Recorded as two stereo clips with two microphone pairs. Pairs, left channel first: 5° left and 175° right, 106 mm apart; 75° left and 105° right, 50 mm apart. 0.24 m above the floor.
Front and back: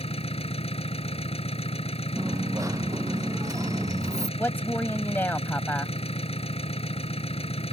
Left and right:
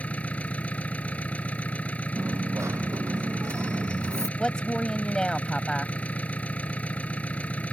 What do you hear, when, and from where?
0.0 s an engine running: 15° left
2.2 s a dropped coin: 115° right
4.4 s a woman speaking: 35° left